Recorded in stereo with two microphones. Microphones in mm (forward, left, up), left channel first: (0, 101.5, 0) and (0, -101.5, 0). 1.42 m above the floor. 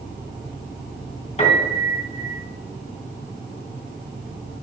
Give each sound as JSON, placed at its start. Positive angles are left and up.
{"t": 1.4, "sound": "a piano", "side_deg": 30, "distance_m": 3.5}